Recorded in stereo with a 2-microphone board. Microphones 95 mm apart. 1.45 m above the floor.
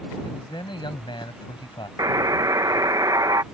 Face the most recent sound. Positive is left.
turn(degrees=-35)  # may be behind; listen again after turning